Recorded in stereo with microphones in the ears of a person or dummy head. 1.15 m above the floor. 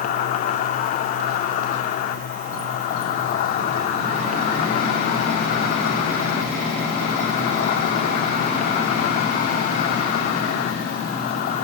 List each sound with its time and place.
0.0 s an insect: 40° left (ahead or behind), 1.8 m